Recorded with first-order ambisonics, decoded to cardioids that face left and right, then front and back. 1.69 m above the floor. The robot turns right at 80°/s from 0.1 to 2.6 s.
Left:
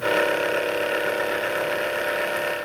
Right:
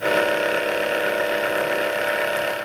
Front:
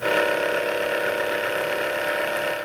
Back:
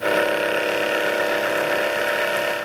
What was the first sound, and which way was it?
Only background noise.